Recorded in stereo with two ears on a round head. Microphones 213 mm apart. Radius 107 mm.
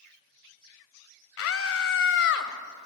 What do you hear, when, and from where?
1.4 s a scream: 60° left (ahead or behind), 2.5 m; by 2.5 s 50° left (ahead or behind), 2 m